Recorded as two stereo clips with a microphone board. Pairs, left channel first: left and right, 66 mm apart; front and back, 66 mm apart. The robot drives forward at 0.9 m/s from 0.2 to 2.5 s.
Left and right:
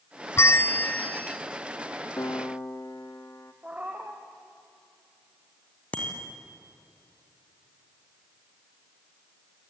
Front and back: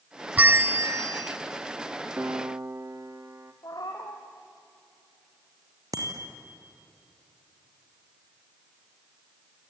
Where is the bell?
120° left, 0.6 m; by 1.4 s 160° left, 1.3 m.